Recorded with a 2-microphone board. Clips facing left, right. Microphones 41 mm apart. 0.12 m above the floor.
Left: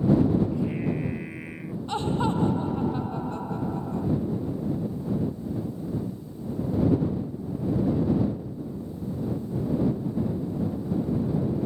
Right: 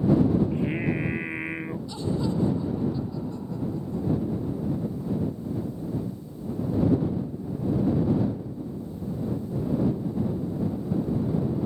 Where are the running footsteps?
I don't hear running footsteps.